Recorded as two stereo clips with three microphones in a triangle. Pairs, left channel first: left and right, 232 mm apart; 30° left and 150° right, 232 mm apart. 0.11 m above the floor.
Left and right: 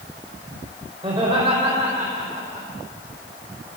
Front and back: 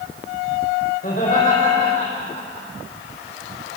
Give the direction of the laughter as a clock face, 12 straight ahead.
1 o'clock.